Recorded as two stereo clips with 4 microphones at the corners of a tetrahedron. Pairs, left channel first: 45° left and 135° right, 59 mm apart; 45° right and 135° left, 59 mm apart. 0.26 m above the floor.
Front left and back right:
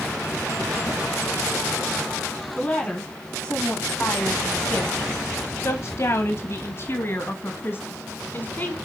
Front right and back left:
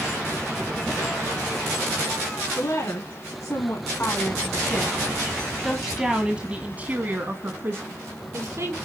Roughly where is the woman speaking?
Ahead.